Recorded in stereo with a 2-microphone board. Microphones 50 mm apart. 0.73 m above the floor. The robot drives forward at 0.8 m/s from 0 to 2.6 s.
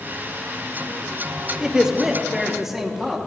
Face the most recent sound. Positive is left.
turn(degrees=-5)  # may be behind; listen again after turning